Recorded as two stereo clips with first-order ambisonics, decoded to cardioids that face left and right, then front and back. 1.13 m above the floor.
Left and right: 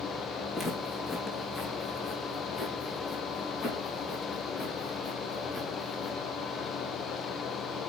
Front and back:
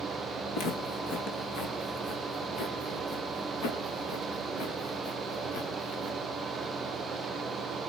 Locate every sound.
0.5 s footsteps: 20° left, 4.5 m; by 6.2 s 30° left, 7.5 m